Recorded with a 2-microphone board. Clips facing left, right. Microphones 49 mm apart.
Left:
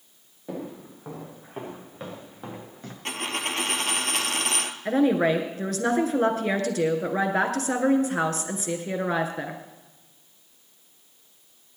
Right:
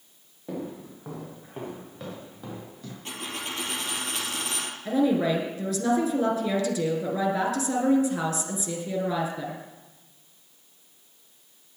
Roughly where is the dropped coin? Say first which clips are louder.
Left 6 dB; left.